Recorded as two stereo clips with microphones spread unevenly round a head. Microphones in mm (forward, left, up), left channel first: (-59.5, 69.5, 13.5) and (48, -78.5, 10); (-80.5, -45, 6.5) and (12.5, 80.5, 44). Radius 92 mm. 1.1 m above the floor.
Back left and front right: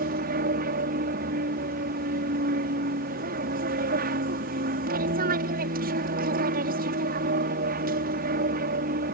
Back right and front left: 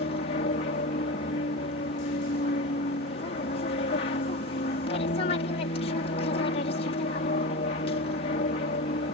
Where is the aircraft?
85° right.